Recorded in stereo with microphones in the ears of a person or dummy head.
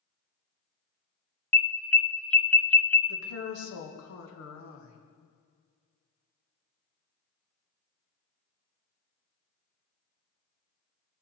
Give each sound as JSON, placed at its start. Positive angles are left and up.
{"t": 1.5, "sound": "an alarm", "side_deg": 15, "distance_m": 0.7}
{"t": 3.1, "sound": "a woman speaking", "side_deg": 70, "distance_m": 1.6}